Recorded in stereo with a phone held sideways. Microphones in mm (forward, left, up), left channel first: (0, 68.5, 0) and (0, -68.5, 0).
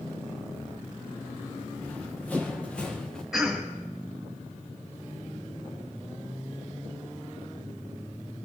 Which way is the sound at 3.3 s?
Centre (ahead or behind).